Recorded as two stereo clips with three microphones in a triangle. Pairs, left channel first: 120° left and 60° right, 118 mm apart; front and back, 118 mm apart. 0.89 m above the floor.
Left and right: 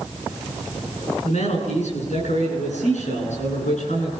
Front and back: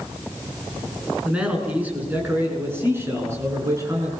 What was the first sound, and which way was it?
A man speaking, 100° left.